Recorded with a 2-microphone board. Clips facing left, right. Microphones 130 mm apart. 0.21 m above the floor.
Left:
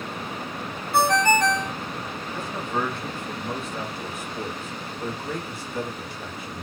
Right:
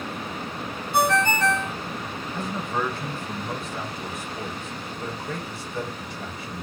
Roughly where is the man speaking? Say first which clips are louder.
Even; centre.